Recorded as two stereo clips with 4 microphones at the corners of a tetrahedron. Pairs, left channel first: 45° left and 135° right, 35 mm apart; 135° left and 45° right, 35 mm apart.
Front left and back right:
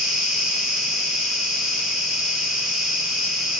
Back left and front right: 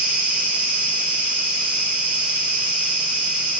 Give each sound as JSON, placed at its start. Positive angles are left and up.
{"t": 0.0, "sound": "an insect", "azimuth_deg": -45, "distance_m": 1.8}